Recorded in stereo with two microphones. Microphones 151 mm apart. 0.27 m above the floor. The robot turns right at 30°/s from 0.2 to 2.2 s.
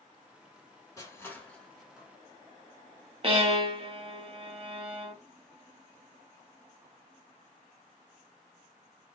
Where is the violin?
40° right (ahead or behind), 0.7 m.